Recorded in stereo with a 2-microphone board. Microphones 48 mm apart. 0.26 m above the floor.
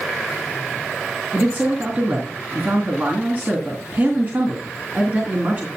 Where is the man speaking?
40° right (ahead or behind), 3 m.